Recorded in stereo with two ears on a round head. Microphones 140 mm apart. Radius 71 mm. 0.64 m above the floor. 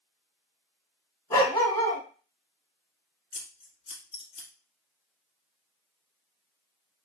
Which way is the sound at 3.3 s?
35° left (ahead or behind).